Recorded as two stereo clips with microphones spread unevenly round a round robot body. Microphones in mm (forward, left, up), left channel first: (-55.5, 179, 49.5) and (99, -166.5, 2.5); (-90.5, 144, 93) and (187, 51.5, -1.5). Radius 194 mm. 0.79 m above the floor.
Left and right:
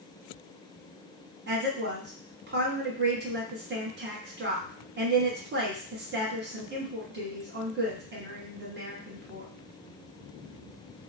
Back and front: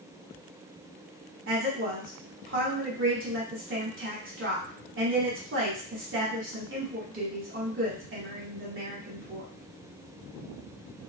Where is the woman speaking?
15° right, 1.2 m.